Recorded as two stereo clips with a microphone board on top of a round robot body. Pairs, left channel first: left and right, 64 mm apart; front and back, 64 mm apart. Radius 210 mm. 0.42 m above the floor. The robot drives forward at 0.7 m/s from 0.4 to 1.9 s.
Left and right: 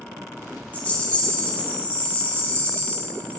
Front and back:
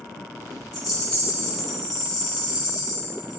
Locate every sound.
0.7 s a rattle: 25° left, 4 m; by 3.4 s 30° left, 3.5 m